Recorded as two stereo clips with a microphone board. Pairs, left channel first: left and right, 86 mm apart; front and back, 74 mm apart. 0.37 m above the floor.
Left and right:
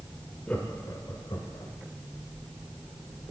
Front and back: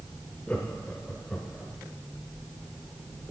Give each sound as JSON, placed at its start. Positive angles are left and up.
{"t": 0.5, "sound": "laughter", "azimuth_deg": 45, "distance_m": 1.0}